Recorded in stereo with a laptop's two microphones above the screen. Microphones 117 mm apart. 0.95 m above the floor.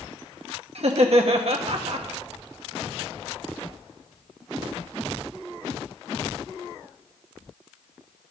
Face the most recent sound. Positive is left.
turn(degrees=-60)  # may be behind; listen again after turning